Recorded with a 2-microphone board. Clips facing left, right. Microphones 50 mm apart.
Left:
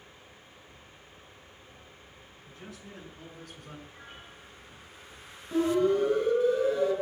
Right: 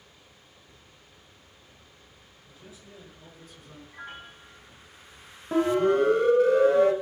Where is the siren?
65° right (ahead or behind), 3 m; by 6.9 s 75° right (ahead or behind), 2.5 m.